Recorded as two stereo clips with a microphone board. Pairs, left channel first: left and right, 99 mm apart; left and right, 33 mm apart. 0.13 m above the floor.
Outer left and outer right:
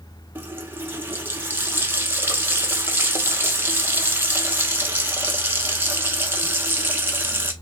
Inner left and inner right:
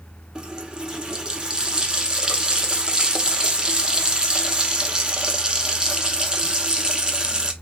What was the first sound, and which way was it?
A running tap, 20° right (ahead or behind).